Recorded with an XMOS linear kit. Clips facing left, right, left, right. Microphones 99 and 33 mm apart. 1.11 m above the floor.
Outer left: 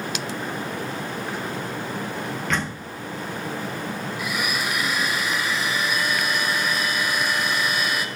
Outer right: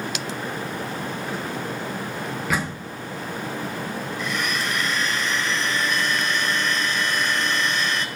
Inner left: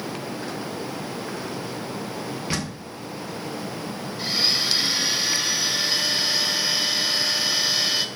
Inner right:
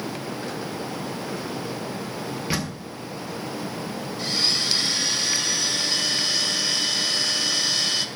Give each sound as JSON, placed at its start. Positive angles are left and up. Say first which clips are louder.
{"t": 2.5, "sound": "a door slam", "louder": "outer right 2 dB, inner right 1 dB", "side_deg": -10, "distance_m": 1.4}
{"t": 4.2, "sound": "a blender", "louder": "even, inner left 1 dB", "side_deg": 10, "distance_m": 2.0}